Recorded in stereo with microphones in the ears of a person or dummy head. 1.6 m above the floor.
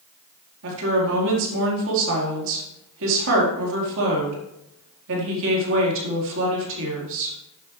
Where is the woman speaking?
70° right (ahead or behind), 4 m.